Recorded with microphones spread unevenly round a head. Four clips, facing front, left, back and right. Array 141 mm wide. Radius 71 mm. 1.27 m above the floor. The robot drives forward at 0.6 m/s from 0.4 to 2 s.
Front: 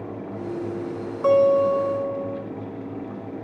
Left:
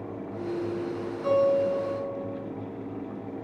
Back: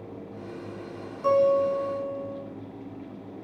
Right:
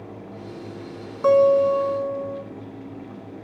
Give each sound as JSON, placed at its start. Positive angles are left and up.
{"t": 1.2, "sound": "a guitar", "azimuth_deg": -55, "distance_m": 2.0}